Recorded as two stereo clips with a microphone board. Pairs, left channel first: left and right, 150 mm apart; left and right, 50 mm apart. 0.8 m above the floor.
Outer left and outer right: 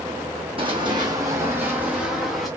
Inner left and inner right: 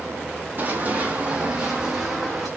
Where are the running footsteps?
35° right (ahead or behind), 1.7 m; by 2.5 s centre (ahead or behind), 2 m.